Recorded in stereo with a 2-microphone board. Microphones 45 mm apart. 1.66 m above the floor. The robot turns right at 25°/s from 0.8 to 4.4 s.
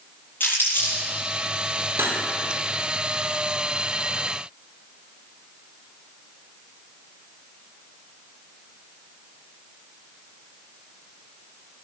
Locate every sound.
0.4 s crumpling: 40° left (ahead or behind), 7 m; by 1.0 s 45° left (ahead or behind), 7 m
2.0 s cutlery clinking: 60° right (ahead or behind), 2.5 m; by 2.2 s 55° right (ahead or behind), 2.5 m